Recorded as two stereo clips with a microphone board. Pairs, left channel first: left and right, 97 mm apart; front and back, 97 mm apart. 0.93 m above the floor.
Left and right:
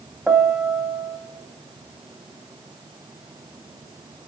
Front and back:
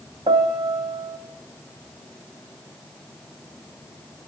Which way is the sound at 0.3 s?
165° right.